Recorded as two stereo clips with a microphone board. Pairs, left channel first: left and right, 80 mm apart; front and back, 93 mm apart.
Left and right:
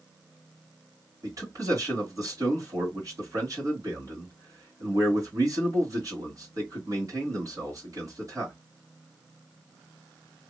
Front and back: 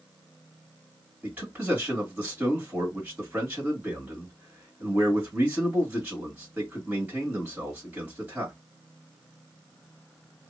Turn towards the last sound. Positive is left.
turn(degrees=-110)